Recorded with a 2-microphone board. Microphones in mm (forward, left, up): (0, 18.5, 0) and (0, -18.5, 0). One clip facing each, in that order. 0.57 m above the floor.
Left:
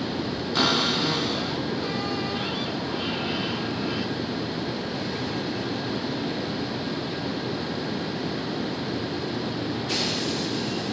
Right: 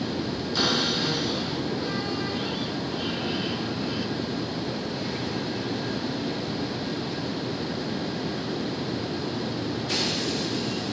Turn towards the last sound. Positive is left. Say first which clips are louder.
# left 2 dB
turn(degrees=45)  # may be behind; listen again after turning